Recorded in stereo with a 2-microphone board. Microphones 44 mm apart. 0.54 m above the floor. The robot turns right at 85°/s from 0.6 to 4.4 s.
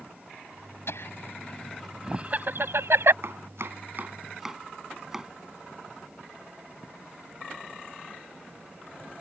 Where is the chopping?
65° right (ahead or behind); by 5.3 s 10° right (ahead or behind).